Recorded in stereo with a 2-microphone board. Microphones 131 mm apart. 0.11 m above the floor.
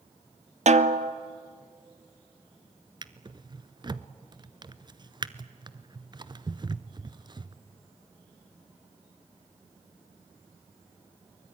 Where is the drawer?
35° right (ahead or behind), 0.7 m.